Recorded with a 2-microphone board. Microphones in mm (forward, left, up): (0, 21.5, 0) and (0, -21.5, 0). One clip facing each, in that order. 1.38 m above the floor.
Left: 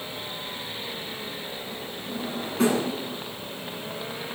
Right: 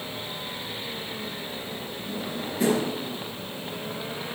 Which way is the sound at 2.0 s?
75° left (ahead or behind).